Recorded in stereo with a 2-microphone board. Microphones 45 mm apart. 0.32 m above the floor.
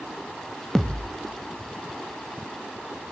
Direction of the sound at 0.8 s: 10° left (ahead or behind).